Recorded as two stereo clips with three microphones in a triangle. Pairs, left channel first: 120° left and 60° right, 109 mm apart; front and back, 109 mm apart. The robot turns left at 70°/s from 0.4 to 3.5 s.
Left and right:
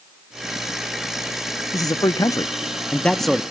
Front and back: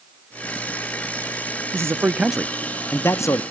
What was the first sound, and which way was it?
A man speaking, 140° left.